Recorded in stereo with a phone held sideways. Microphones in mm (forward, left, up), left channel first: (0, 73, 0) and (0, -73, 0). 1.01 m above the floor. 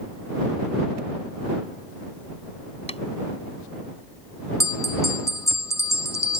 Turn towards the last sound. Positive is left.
turn(degrees=20)  # may be behind; listen again after turning